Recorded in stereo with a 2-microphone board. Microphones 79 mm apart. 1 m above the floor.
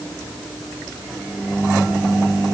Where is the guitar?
I don't hear a guitar.